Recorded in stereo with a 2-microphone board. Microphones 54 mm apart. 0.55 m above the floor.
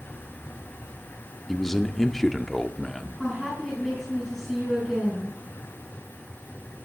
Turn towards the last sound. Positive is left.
turn(degrees=-10)  # may be behind; listen again after turning